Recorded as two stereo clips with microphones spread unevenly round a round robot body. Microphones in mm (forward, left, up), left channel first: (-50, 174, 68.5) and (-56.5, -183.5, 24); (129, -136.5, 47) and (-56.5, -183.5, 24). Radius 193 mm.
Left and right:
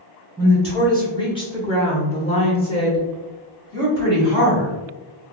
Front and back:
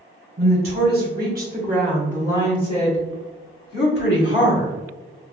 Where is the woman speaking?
175° left, 1.4 m; by 4.7 s 5° left, 1.8 m.